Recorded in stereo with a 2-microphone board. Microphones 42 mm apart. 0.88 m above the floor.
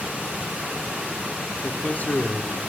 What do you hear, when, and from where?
1.6 s a man speaking: 40° left (ahead or behind), 2.5 m